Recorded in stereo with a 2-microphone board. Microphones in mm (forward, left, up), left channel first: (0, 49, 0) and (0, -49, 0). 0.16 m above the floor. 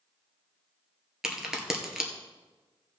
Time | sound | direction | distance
1.2 | a crack | 5° right (ahead or behind) | 2 m